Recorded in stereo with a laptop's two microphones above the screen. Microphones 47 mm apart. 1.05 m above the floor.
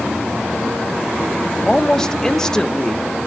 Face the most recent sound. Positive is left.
turn(degrees=15)  # may be behind; listen again after turning